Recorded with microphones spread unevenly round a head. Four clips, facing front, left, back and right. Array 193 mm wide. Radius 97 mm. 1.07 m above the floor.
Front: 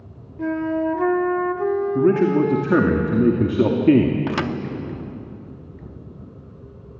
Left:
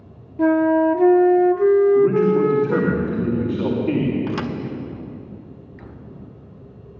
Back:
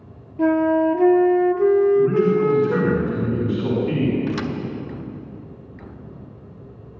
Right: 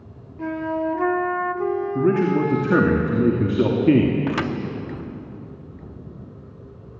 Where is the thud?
45° right, 0.8 m.